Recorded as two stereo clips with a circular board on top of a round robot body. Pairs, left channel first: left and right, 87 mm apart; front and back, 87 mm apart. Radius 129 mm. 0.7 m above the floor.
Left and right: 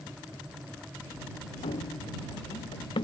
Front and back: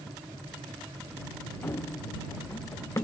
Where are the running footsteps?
70° left; by 3.0 s 60° left.